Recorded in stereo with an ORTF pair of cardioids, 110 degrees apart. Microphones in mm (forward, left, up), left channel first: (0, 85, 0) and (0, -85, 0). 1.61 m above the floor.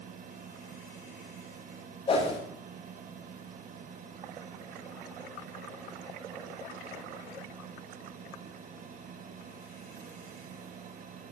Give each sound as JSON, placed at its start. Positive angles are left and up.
{"t": 0.0, "sound": "a fan", "azimuth_deg": -50, "distance_m": 1.4}
{"t": 2.1, "sound": "a whoosh", "azimuth_deg": 35, "distance_m": 6.5}